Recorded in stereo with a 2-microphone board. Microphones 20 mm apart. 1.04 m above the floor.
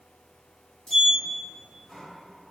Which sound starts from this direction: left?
A sliding door, at 0.9 s.